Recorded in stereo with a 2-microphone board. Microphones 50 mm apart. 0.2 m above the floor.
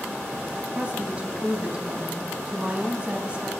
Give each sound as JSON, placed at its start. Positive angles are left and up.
{"t": 0.8, "sound": "a woman speaking", "side_deg": -30, "distance_m": 1.2}